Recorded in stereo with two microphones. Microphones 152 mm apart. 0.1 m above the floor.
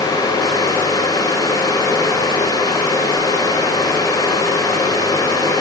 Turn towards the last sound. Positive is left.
No sound to turn to.